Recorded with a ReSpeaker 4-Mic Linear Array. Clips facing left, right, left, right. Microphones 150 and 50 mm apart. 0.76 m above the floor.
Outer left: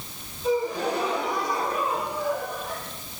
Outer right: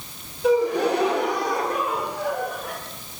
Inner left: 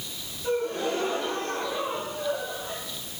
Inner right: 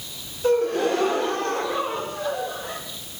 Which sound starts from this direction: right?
A gasp, at 0.4 s.